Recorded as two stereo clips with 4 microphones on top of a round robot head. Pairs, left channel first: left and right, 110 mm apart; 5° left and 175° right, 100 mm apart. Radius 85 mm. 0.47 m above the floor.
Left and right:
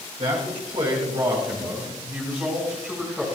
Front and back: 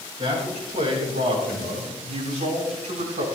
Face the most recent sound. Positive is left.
turn(degrees=180)